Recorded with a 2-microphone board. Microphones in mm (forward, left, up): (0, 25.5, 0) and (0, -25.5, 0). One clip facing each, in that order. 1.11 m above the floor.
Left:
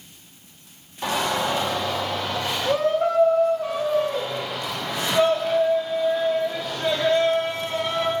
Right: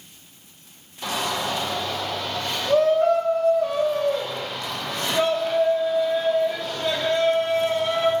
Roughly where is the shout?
Left.